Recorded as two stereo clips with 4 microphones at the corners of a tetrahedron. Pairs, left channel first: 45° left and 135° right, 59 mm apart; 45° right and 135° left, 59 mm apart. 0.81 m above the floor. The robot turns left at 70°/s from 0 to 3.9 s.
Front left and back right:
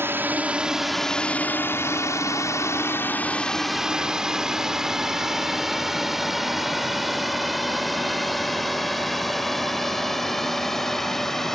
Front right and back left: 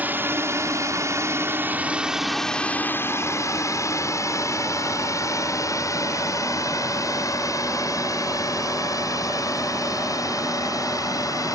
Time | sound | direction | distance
0.0 | a drone | 170° right | ?